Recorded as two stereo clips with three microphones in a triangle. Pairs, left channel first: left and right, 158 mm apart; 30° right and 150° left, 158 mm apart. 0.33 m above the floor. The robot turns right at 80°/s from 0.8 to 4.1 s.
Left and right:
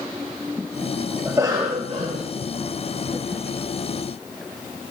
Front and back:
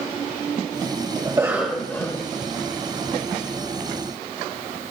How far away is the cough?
About 1.2 m.